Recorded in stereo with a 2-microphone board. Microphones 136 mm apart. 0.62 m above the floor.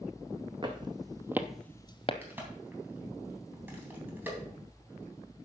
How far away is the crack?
About 3 m.